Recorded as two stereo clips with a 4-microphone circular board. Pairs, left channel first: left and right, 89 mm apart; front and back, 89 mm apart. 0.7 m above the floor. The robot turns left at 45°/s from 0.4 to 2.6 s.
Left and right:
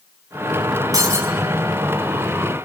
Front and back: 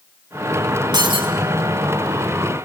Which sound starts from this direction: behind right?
Breaking glass, at 0.9 s.